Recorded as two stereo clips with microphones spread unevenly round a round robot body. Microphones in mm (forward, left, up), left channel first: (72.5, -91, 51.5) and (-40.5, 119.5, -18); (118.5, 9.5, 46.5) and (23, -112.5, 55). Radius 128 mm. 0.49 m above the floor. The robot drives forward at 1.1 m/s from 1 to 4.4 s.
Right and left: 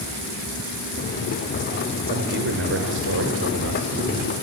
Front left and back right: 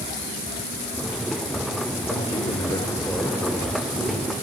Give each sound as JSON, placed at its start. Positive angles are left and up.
{"t": 2.1, "sound": "a man speaking", "azimuth_deg": 95, "distance_m": 1.8}